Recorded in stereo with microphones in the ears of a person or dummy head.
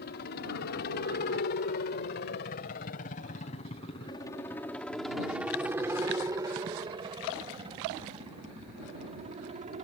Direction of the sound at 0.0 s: 50° left (ahead or behind).